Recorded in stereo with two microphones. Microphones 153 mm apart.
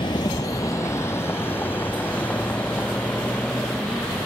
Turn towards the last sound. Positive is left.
turn(degrees=5)  # may be behind; listen again after turning